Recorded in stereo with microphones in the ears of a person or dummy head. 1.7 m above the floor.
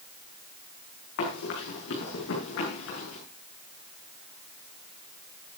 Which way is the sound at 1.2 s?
65° left (ahead or behind).